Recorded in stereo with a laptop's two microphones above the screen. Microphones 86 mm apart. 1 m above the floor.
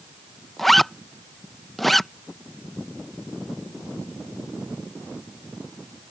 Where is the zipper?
Centre (ahead or behind).